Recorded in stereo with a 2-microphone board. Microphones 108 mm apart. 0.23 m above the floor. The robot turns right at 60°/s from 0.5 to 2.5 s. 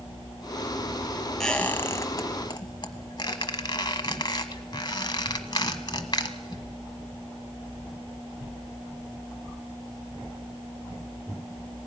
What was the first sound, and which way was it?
A squeak, 5° left (ahead or behind).